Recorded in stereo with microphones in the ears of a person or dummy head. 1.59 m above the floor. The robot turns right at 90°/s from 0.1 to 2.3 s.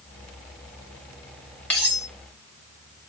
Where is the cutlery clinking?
175° left, 1.2 m; by 2.1 s 150° right, 1.2 m.